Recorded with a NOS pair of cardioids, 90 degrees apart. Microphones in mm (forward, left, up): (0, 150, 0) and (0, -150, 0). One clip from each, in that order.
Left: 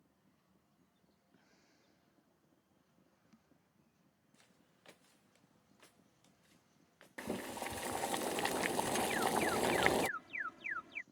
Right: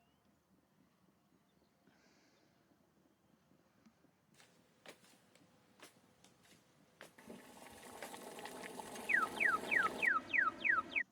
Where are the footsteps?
25° right; by 8.2 s 45° right.